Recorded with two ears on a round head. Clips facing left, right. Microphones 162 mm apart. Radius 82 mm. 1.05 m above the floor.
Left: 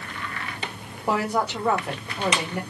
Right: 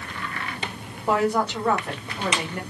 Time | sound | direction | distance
1.1 | a woman speaking | 5° left (ahead or behind) | 1.3 m